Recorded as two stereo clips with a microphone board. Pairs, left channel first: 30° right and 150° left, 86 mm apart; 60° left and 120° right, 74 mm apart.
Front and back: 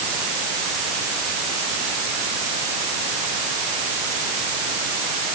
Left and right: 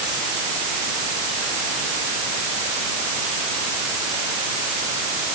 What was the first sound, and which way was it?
Only background noise.